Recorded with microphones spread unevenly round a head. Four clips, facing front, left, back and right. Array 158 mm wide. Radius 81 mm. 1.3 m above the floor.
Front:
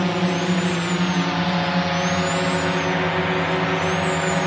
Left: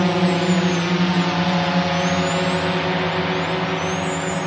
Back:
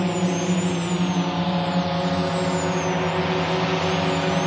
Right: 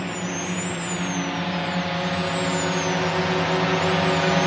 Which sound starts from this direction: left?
A drone, at 0.0 s.